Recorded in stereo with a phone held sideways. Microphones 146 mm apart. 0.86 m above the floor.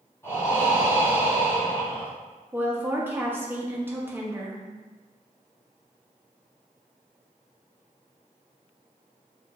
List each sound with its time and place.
0.2 s breathing: 15° left (ahead or behind), 1.5 m
2.5 s a woman speaking: 15° right (ahead or behind), 0.8 m